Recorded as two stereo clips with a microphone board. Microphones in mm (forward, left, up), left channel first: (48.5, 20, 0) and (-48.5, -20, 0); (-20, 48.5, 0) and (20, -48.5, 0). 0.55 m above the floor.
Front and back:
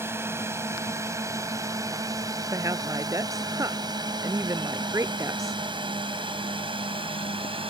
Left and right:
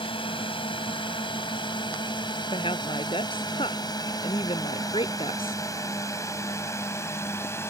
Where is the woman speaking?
145° left.